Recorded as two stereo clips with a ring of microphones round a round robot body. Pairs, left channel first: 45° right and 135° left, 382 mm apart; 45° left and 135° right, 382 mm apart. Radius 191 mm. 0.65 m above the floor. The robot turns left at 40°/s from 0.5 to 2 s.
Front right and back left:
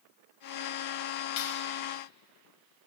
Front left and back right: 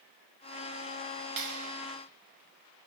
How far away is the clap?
About 3 m.